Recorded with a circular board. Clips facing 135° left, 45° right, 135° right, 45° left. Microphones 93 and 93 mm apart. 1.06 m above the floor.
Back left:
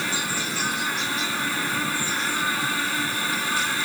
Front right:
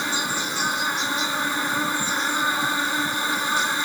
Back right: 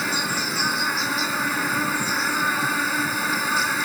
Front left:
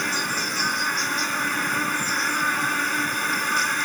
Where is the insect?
60° right.